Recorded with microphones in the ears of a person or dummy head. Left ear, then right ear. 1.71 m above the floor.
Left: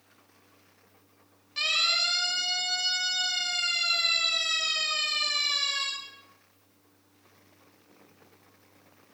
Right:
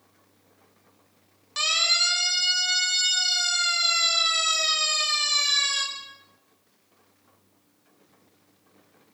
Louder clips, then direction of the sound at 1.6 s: Right 3 dB; 45° right (ahead or behind).